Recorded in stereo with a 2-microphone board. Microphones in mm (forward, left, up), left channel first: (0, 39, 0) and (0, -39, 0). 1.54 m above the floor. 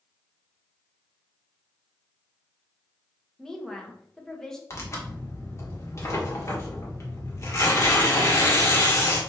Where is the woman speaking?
10° left (ahead or behind), 1.7 m.